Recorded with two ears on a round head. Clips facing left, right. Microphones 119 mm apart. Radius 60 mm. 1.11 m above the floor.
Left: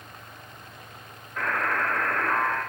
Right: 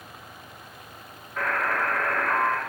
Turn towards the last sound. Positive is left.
turn(degrees=0)  # may be behind; listen again after turning